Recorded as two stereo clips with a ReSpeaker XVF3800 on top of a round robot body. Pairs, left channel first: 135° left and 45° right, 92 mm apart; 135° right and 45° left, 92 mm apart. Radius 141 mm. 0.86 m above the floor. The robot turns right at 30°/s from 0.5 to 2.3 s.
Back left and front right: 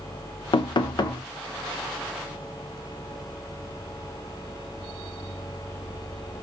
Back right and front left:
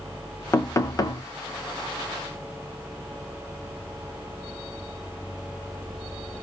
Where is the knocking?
160° left, 0.6 m; by 1.2 s straight behind, 0.6 m.